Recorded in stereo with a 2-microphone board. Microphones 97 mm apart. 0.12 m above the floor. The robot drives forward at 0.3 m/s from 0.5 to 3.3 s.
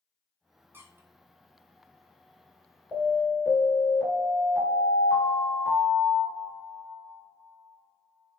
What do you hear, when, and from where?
0.7 s a squeak: 25° right (ahead or behind), 0.5 m; by 1.1 s 30° right (ahead or behind), 0.5 m
2.9 s an alarm: 5° left (ahead or behind), 1.8 m